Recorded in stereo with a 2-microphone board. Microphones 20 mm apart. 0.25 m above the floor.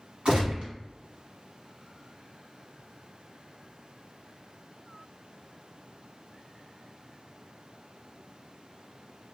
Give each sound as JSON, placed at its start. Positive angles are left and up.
{"t": 0.2, "sound": "a gunshot", "side_deg": -60, "distance_m": 1.2}